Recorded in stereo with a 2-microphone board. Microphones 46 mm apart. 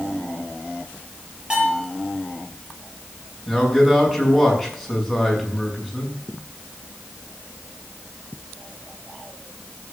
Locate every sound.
1.5 s a bell: 20° right (ahead or behind), 7.5 m
3.5 s a man speaking: 5° right (ahead or behind), 6.5 m